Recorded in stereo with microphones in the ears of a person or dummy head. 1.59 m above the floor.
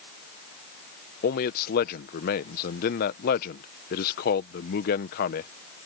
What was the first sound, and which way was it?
A man speaking, 45° left (ahead or behind).